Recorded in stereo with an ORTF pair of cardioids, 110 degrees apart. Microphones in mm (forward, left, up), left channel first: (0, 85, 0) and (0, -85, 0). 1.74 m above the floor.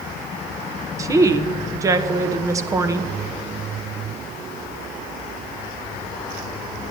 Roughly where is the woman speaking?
Ahead.